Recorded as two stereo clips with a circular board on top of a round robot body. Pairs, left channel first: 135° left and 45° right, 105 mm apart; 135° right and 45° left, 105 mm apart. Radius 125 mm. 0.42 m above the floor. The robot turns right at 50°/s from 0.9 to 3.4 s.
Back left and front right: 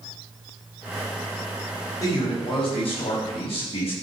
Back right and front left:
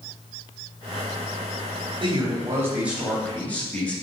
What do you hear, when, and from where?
2.0 s a man speaking: 80° left, 3.5 m; by 3.9 s 150° left, 3.5 m